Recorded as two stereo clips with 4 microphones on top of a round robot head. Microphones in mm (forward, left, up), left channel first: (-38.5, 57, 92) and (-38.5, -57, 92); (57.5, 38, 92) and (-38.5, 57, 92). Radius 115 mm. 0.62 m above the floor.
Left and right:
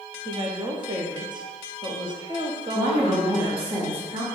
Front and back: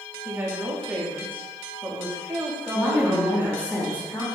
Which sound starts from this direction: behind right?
A woman speaking, at 0.2 s.